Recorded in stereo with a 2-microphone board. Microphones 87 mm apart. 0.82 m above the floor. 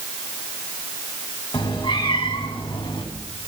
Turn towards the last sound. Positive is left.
turn(degrees=85)